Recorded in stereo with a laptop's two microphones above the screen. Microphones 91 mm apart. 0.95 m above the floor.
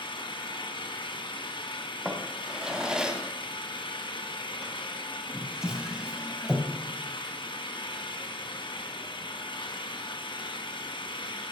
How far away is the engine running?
About 1.3 m.